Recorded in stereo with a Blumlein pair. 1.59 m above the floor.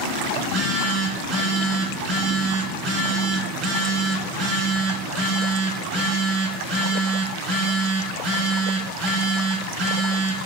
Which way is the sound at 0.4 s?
20° right.